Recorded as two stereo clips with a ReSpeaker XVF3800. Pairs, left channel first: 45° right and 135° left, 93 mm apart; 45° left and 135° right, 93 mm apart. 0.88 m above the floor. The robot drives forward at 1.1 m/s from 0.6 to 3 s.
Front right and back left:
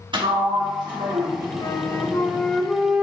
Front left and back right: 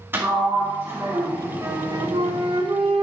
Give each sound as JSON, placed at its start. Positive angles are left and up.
{"t": 0.1, "sound": "a sliding door", "azimuth_deg": 160, "distance_m": 1.5}
{"t": 1.6, "sound": "a flute", "azimuth_deg": -75, "distance_m": 1.0}